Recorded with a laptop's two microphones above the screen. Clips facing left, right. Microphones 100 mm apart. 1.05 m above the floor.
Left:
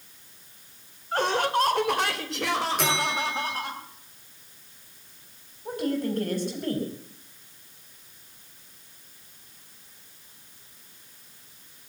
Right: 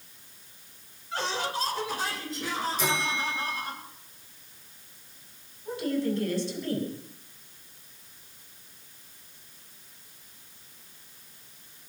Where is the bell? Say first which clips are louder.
Left 3 dB; 70° left (ahead or behind), 9.5 m.